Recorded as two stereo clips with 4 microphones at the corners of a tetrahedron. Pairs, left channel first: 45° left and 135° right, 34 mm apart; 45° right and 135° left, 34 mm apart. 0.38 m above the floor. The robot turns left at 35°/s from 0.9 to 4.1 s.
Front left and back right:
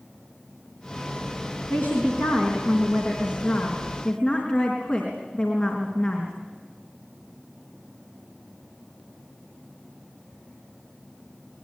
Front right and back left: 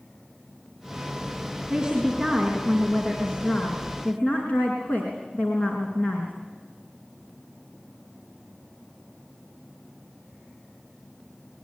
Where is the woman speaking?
75° left, 4 m; by 6.3 s 5° right, 4 m.